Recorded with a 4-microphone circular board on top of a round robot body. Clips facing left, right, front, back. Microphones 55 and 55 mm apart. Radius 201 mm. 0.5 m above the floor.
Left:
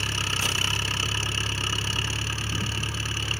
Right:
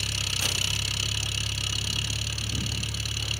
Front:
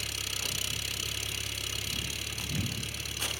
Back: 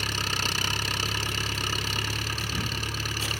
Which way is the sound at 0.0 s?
145° left.